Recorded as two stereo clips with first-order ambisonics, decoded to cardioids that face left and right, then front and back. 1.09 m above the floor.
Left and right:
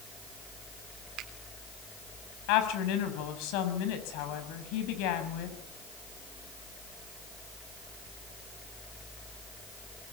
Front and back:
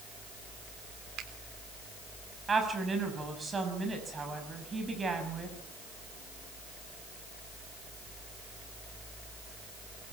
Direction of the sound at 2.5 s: 105° left.